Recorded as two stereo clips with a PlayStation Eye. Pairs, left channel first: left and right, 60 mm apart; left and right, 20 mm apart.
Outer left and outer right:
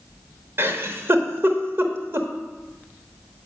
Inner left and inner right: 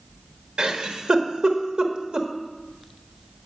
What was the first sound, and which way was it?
A giggle, 45° right (ahead or behind).